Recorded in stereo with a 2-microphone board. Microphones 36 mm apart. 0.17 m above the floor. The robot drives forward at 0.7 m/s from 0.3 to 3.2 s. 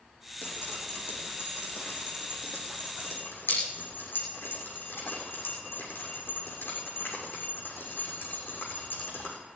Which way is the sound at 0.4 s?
80° left.